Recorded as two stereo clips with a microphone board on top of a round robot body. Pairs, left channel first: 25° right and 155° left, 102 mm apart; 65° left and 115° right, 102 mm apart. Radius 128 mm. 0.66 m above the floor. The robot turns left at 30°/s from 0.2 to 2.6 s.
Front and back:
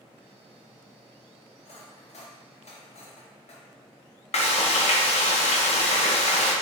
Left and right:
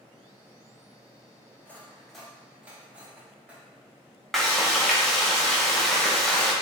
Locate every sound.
1.6 s cutlery clinking: 5° right, 0.9 m; by 3.6 s 35° right, 0.9 m
4.3 s frying: 20° right, 0.8 m